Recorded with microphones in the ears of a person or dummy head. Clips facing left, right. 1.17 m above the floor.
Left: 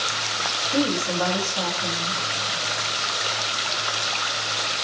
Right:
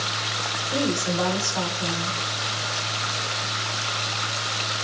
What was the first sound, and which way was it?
A woman speaking, 85° right.